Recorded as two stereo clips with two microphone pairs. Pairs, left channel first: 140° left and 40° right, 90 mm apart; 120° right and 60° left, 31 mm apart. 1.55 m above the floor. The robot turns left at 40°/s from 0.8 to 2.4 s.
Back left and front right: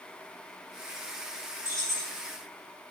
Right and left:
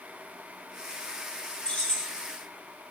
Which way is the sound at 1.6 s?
80° right.